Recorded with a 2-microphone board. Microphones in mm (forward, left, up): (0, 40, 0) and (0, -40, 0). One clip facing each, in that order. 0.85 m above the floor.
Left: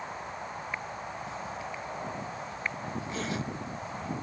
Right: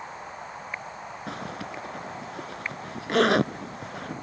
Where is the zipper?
65° right (ahead or behind).